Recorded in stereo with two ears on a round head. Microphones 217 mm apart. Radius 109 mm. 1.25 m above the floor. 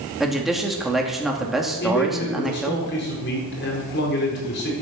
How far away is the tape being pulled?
I don't hear tape being pulled.